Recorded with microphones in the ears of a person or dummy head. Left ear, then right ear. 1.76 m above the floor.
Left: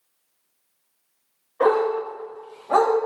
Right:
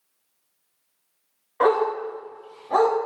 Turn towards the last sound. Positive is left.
turn(degrees=40)  # may be behind; listen again after turning